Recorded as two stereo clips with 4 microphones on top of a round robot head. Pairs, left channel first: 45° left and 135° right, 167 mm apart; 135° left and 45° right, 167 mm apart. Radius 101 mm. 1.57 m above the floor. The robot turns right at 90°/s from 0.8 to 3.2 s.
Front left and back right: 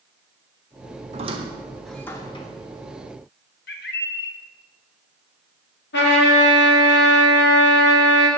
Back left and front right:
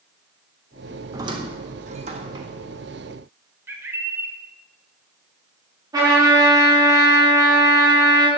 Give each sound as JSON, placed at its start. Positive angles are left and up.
{"t": 1.1, "sound": "a squeak", "azimuth_deg": -110, "distance_m": 0.8}
{"t": 3.7, "sound": "a bird", "azimuth_deg": 30, "distance_m": 0.9}
{"t": 5.9, "sound": "a trumpet", "azimuth_deg": 25, "distance_m": 3.0}